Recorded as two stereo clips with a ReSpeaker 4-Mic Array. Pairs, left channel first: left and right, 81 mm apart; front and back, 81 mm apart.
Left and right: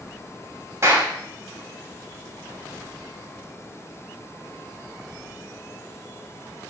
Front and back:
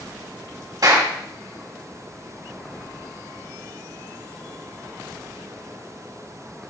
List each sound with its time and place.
0.8 s a clap: 145° right, 5 m